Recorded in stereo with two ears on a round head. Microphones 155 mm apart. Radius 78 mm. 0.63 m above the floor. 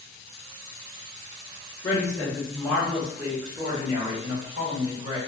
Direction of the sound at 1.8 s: 25° left (ahead or behind).